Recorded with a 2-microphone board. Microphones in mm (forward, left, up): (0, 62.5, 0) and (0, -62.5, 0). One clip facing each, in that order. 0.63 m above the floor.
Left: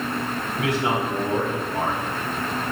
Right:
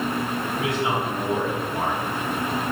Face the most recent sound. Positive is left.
turn(degrees=75)  # may be behind; listen again after turning